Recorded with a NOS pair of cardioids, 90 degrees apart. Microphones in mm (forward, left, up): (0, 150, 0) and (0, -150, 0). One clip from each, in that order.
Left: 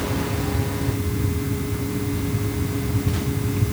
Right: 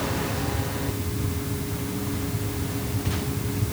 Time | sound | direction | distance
0.0 | a fan | 40° left | ?